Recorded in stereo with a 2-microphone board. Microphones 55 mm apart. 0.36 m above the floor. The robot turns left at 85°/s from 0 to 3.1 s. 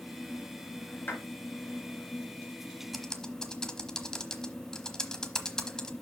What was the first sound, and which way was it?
A clap, 40° left (ahead or behind).